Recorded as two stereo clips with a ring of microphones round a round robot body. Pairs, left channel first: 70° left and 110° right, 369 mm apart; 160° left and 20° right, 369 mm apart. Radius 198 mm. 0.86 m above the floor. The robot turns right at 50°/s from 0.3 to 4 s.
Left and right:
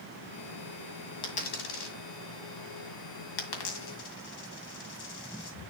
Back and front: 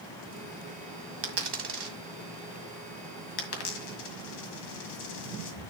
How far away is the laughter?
No laughter in this recording.